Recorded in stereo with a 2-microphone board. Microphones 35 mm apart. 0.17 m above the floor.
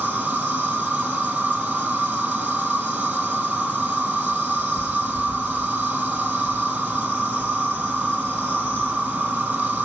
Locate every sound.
0.0 s an insect: 50° right (ahead or behind), 2.5 m